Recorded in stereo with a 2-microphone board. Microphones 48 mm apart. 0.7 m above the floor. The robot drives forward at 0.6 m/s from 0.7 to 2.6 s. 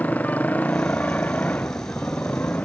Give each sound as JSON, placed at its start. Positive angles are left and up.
{"t": 0.0, "sound": "a motorcycle", "side_deg": 30}